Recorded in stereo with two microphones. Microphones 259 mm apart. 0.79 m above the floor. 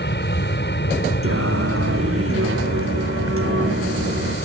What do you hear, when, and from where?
0.0 s an aircraft: 40° left (ahead or behind)
1.2 s singing: 55° right (ahead or behind)